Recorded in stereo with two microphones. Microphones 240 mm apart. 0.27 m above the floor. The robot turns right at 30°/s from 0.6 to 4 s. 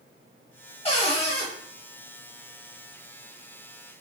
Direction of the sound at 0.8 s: 25° left (ahead or behind).